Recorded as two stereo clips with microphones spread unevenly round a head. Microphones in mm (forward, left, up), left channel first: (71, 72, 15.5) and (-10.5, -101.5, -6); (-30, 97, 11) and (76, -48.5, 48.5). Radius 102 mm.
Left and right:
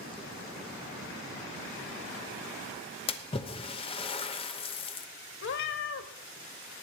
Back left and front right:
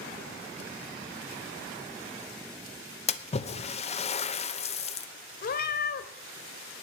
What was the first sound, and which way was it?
A splash, 125° left.